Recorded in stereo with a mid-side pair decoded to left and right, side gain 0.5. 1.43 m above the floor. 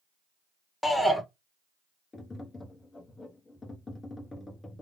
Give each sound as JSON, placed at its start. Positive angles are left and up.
{"t": 0.8, "sound": "a shout", "azimuth_deg": 10, "distance_m": 1.2}
{"t": 2.1, "sound": "tapping", "azimuth_deg": 25, "distance_m": 0.9}